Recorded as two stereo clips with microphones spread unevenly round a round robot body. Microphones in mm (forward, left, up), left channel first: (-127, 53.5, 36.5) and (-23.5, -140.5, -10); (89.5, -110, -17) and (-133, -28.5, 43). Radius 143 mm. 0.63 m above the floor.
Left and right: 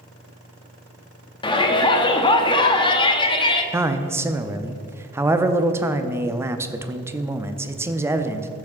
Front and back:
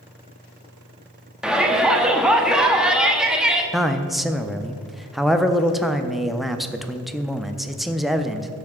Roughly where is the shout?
Ahead left.